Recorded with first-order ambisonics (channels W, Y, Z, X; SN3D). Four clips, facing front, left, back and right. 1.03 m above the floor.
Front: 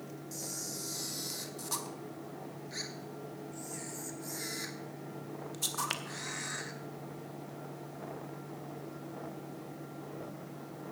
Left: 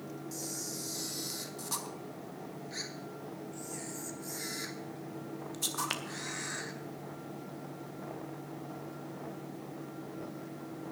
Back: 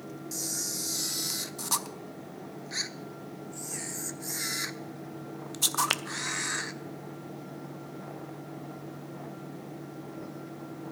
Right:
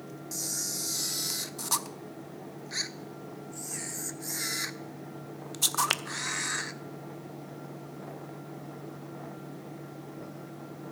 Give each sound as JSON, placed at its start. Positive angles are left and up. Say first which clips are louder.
{"t": 0.3, "sound": "a camera shutter", "louder": "right 8 dB, back 8 dB", "azimuth_deg": -135, "distance_m": 0.5}